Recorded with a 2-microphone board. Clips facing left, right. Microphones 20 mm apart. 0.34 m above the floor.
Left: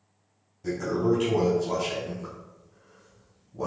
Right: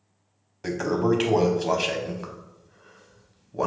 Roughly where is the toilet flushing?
Right.